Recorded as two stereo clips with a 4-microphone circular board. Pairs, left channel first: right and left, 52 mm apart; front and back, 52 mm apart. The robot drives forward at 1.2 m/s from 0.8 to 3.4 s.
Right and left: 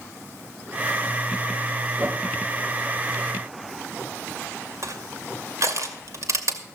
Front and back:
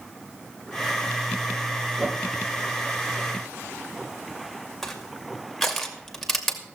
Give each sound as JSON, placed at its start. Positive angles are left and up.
{"t": 2.0, "sound": "a whoosh", "azimuth_deg": 125, "distance_m": 1.4}
{"t": 4.8, "sound": "crushing", "azimuth_deg": 90, "distance_m": 2.5}